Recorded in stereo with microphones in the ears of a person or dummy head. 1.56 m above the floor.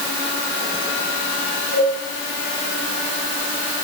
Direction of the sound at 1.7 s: 55° left (ahead or behind).